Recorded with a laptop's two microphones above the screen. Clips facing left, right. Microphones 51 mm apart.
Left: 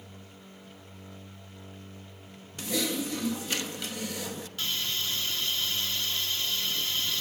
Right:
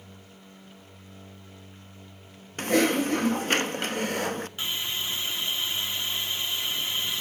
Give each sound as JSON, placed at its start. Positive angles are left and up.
{"t": 2.6, "sound": "typing on a keyboard", "side_deg": -45, "distance_m": 0.9}
{"t": 4.6, "sound": "a hiss", "side_deg": -20, "distance_m": 1.8}